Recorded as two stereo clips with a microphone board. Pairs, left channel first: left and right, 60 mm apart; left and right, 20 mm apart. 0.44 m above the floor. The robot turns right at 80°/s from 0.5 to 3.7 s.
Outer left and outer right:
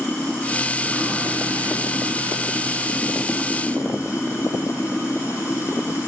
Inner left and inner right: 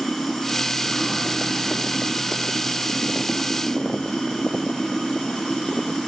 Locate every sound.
0.0 s running water: 155° left, 4 m; by 6.1 s 50° left, 4 m